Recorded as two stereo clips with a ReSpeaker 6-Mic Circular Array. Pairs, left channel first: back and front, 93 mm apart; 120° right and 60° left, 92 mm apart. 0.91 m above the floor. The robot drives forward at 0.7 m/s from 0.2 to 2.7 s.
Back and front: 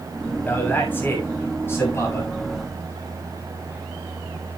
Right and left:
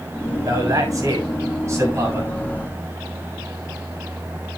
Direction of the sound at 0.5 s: 110° left.